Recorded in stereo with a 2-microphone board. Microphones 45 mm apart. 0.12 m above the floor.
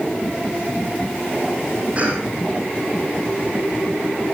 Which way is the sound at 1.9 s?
30° right (ahead or behind).